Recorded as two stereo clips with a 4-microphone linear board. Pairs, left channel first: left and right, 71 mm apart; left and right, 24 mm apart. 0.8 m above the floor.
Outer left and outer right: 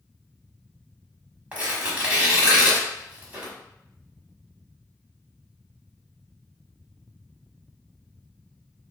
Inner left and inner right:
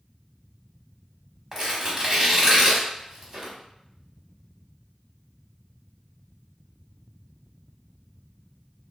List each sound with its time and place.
1.5 s tearing paper: 20° right (ahead or behind), 1.3 m